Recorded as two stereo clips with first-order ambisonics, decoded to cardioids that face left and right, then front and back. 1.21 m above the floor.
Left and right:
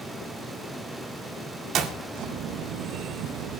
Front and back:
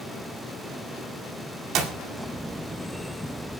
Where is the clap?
140° right, 2 m.